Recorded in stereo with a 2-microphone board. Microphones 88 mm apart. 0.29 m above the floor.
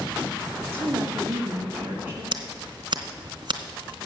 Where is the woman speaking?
25° right (ahead or behind), 1.7 m.